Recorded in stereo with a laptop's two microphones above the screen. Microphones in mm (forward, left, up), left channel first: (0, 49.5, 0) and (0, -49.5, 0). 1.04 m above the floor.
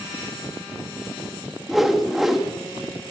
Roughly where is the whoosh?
Centre.